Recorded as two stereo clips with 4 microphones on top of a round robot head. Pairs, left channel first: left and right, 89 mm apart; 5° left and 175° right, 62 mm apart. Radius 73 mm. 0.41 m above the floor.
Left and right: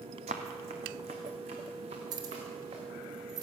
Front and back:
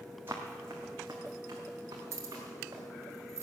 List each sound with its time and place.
0.3 s running footsteps: 105° right, 1.0 m; by 2.8 s 115° right, 3 m
2.1 s keys jangling: 135° right, 1.4 m